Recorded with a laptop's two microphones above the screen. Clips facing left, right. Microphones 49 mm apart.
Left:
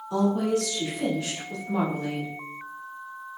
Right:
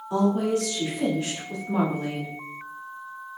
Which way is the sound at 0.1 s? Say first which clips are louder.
Right 1 dB; 30° right (ahead or behind).